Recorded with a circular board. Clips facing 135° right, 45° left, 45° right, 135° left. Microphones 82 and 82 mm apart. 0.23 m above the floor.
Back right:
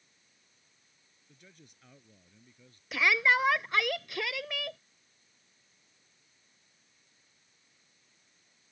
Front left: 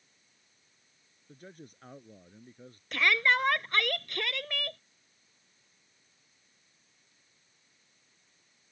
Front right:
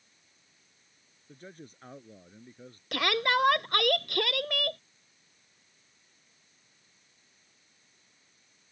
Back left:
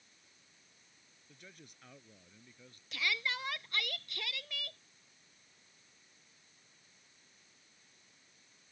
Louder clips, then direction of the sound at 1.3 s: Front left 10 dB, front right 10 dB; 5° left.